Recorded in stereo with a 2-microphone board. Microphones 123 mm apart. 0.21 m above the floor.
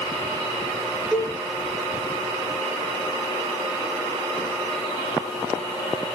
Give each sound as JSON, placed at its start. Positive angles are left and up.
{"t": 1.1, "sound": "a cowbell", "side_deg": -5, "distance_m": 4.5}